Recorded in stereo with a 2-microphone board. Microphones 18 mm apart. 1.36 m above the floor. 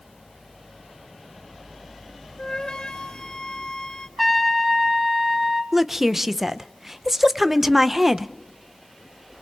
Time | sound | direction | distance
2.4 | a flute | 70° left (ahead or behind) | 1.9 m
4.2 | a trumpet | 5° right (ahead or behind) | 2 m
5.7 | a woman speaking | 25° right (ahead or behind) | 0.7 m